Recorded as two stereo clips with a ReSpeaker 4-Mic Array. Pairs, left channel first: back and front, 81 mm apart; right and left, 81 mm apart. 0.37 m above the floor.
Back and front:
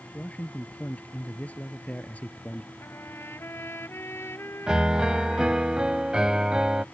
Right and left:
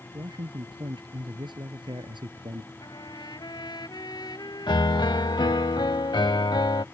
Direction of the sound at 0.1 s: 110° left.